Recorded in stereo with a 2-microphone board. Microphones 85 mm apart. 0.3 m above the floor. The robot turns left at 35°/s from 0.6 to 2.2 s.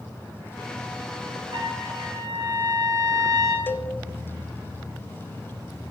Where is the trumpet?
75° right (ahead or behind), 3.5 m; by 3.6 s 50° right (ahead or behind), 3.5 m.